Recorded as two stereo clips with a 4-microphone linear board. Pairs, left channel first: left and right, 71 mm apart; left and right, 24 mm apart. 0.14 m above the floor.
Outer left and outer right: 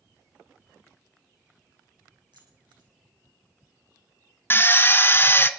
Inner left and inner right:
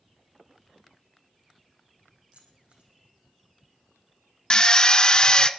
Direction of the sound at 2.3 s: 75° right (ahead or behind).